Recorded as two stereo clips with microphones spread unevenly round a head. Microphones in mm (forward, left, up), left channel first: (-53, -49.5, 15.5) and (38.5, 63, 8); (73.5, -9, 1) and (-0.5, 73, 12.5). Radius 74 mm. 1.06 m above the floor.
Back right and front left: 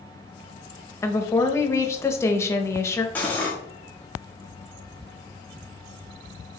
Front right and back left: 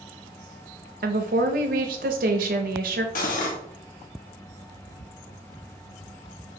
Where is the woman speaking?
155° left, 0.7 m.